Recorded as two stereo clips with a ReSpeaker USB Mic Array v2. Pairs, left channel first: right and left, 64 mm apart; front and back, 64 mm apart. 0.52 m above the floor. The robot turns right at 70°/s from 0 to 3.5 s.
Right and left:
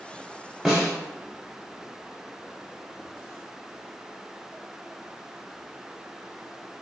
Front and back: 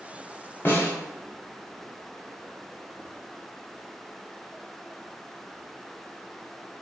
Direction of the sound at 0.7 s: 5° left.